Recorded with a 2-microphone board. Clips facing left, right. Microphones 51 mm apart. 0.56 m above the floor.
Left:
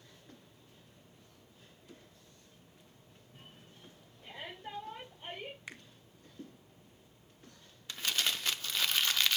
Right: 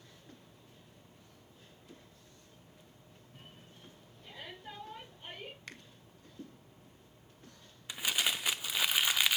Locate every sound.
4.2 s a shout: 35° left (ahead or behind), 4 m; by 5.6 s 20° left (ahead or behind), 3 m
5.7 s a finger snap: 15° left (ahead or behind), 1.1 m
7.9 s crumpling: 15° right (ahead or behind), 0.6 m